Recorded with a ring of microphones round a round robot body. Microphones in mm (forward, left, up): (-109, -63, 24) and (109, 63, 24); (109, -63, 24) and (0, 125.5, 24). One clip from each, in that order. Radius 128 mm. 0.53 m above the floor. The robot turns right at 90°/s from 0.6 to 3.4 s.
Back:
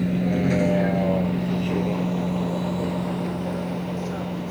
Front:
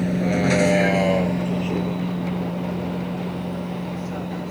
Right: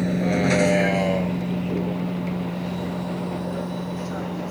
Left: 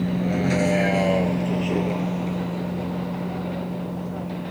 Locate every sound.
0.0 s a vehicle: 30° right; by 4.5 s 65° right